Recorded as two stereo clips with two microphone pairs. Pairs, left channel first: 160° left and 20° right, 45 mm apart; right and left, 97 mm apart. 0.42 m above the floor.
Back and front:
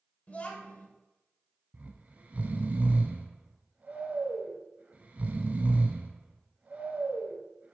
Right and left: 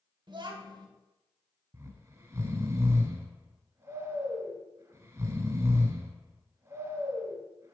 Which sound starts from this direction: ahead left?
Snoring, at 1.7 s.